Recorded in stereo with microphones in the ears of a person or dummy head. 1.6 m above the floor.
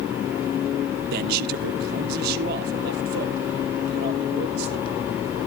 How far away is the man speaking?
About 0.5 m.